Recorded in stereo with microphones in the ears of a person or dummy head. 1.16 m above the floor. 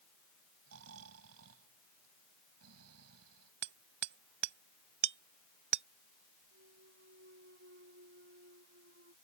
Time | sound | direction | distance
0.7 | snoring | 85° right | ?
3.6 | hammering | 60° right (ahead or behind) | ?
6.5 | a clunk | 60° right (ahead or behind) | ?